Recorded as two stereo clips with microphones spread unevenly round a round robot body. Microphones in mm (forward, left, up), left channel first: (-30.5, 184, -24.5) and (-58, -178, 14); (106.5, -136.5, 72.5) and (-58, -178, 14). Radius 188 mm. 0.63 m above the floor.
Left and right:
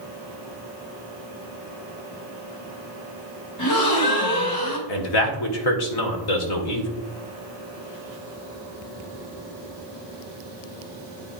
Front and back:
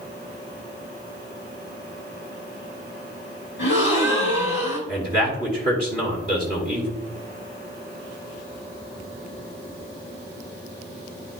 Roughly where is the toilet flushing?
I don't hear a toilet flushing.